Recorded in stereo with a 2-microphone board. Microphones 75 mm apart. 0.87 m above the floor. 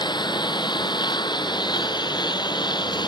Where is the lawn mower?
80° left.